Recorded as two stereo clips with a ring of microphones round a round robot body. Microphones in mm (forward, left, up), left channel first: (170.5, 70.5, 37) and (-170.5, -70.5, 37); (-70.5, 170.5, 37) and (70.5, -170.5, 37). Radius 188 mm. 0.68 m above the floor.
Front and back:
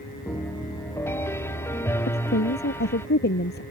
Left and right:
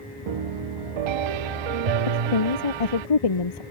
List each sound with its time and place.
0.3 s a piano: 60° right
2.1 s a woman speaking: 85° left